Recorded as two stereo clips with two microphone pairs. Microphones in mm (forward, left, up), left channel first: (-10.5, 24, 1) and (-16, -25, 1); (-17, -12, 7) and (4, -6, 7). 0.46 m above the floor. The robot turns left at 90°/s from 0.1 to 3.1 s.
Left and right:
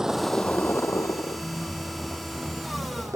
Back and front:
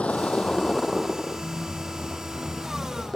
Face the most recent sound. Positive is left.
turn(degrees=-90)